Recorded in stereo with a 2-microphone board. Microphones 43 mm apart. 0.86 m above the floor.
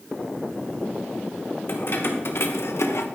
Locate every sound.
1.7 s keys jangling: 50° left (ahead or behind), 1.9 m; by 3.1 s 75° left (ahead or behind), 1.0 m